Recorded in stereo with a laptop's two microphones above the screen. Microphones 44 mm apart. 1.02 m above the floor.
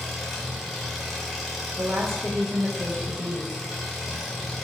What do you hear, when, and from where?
0.0 s an engine running: centre (ahead or behind), 1.3 m
1.8 s a woman speaking: 65° right (ahead or behind), 0.5 m